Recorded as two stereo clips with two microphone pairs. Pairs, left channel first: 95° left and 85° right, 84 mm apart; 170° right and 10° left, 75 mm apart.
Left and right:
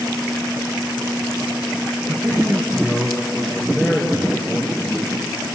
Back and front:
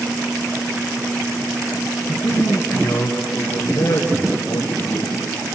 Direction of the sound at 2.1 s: 160° right.